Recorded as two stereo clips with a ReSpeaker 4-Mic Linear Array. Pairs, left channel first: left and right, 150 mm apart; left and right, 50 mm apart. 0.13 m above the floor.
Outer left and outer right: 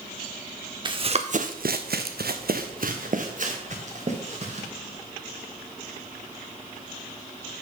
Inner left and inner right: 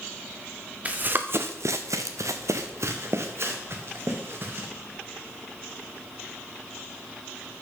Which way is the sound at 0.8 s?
30° right (ahead or behind).